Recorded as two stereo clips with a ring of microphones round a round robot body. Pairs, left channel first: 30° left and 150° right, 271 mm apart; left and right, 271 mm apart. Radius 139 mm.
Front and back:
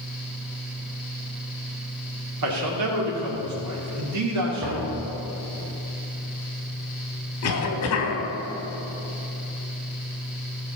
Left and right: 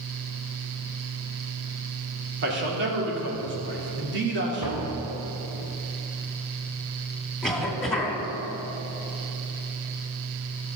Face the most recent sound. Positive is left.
turn(degrees=0)